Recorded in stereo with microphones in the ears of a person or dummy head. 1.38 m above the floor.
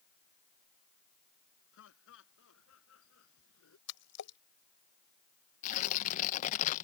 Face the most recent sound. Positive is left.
turn(degrees=40)  # may be behind; listen again after turning